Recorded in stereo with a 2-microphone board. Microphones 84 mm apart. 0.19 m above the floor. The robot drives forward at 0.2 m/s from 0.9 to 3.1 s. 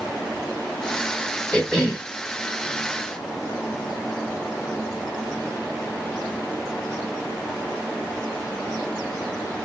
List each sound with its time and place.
1.5 s a cough: 10° left (ahead or behind), 1.3 m